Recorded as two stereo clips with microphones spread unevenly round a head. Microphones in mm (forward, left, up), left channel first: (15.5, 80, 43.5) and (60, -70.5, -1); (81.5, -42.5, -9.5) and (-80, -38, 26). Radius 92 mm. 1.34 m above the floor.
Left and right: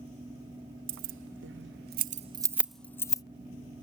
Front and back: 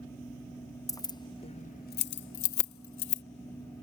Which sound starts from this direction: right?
Keys jangling, at 0.9 s.